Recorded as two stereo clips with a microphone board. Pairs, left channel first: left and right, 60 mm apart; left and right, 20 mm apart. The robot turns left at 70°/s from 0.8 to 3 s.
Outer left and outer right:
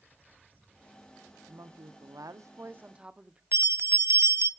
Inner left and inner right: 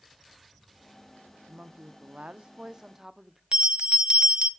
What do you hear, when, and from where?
1.5 s a woman speaking: 55° right, 0.8 m; by 3.4 s 160° right, 0.8 m
3.5 s a bell: 45° right (ahead or behind), 0.5 m